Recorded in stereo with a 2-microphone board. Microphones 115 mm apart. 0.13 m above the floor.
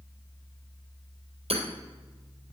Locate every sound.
1.5 s hammering: 70° right (ahead or behind), 2.5 m